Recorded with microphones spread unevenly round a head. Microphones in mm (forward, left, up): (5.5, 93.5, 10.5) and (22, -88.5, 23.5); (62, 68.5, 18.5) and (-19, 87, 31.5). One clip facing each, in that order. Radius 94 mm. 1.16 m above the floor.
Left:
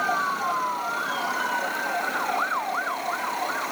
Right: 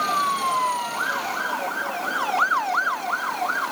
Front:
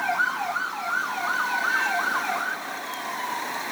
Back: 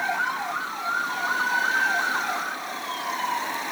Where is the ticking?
No ticking in this recording.